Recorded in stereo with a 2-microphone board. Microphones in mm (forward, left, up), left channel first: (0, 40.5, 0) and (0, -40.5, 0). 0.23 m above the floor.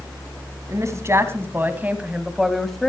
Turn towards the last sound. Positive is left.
turn(degrees=5)  # may be behind; listen again after turning